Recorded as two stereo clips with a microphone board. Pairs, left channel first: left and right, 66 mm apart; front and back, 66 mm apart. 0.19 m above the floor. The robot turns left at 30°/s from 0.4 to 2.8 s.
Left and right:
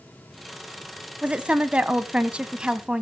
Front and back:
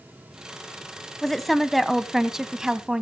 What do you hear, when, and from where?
1.2 s a woman speaking: 80° right, 1.0 m; by 3.0 s 125° right, 1.0 m